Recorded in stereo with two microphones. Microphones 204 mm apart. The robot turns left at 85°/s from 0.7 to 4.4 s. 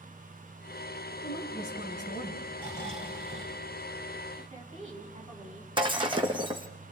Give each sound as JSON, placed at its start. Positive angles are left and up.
{"t": 1.2, "sound": "a woman speaking", "azimuth_deg": 140, "distance_m": 3.0}
{"t": 2.6, "sound": "snoring", "azimuth_deg": 30, "distance_m": 4.0}
{"t": 4.4, "sound": "a woman speaking", "side_deg": -30, "distance_m": 5.0}
{"t": 5.8, "sound": "breaking glass", "side_deg": -25, "distance_m": 1.7}